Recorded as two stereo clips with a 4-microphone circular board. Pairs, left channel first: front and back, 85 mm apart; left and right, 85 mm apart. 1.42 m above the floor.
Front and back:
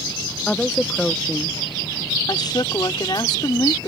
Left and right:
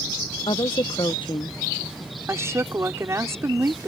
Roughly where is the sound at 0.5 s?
Left.